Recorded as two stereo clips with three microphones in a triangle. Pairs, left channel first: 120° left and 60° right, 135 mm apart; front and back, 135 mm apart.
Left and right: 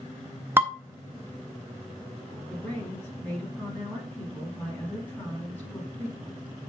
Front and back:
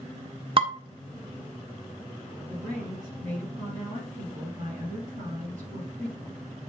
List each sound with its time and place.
0.6 s dishes clattering: 135° right, 1.2 m
2.5 s a woman speaking: 165° right, 6 m